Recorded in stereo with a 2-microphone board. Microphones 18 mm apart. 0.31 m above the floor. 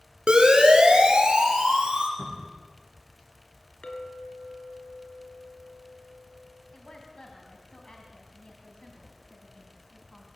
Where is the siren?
65° right (ahead or behind), 4 m; by 2.1 s 70° right (ahead or behind), 6 m.